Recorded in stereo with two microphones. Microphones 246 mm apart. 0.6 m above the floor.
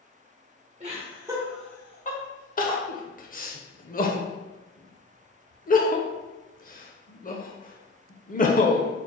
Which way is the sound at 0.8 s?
25° right (ahead or behind).